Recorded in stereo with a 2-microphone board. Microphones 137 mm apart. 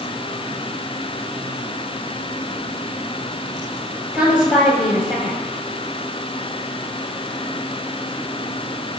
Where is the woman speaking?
5° right (ahead or behind), 6.5 m.